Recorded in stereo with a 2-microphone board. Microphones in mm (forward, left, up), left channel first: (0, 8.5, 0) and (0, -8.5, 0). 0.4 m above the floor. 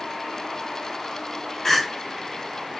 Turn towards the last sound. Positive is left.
turn(degrees=25)  # may be behind; listen again after turning